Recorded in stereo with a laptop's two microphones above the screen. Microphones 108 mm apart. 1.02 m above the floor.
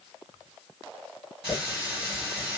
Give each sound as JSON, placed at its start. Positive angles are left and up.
{"t": 1.4, "sound": "a running tap", "side_deg": -5, "distance_m": 1.5}